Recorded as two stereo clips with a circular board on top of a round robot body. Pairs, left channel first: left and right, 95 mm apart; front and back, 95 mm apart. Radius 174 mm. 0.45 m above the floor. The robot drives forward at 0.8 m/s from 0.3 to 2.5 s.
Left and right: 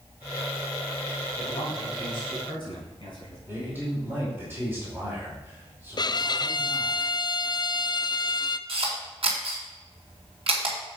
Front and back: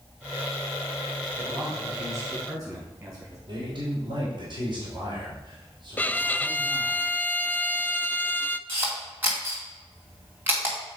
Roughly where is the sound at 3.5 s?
Behind right.